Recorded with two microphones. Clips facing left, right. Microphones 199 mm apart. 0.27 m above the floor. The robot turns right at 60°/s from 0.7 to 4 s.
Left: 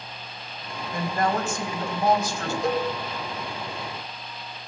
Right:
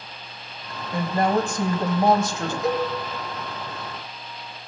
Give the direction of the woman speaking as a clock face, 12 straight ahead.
4 o'clock.